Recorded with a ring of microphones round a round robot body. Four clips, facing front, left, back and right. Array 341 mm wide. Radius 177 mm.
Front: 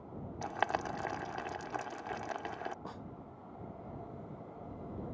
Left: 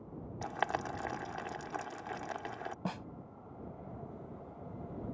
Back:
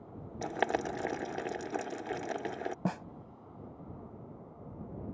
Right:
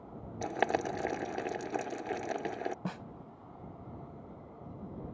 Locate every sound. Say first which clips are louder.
0.4 s boiling: right 5 dB, back 3 dB; 130° right
2.9 s a snare drum: even, back 10 dB; 170° right